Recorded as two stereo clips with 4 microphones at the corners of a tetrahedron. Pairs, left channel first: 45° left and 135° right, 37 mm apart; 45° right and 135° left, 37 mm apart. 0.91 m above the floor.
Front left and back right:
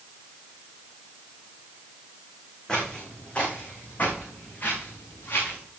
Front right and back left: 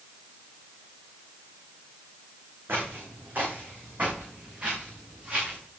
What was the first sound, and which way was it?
Footsteps, 115° left.